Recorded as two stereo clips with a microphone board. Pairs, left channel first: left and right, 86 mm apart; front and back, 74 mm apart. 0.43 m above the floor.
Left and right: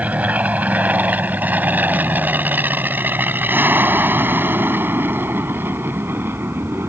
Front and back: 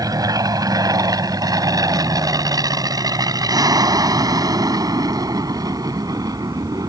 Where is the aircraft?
160° right; by 6.9 s 155° right.